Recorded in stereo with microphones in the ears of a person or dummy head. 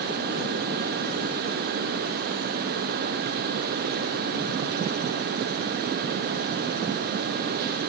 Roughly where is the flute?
No flute in this recording.